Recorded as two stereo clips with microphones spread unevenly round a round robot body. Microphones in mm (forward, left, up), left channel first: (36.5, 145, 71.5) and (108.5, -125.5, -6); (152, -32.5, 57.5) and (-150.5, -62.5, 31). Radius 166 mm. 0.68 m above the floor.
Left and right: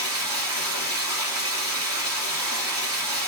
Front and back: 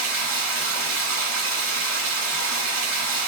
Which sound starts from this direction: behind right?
Running water, at 0.0 s.